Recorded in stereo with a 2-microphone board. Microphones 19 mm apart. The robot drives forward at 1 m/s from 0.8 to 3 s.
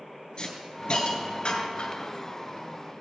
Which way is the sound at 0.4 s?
50° left (ahead or behind).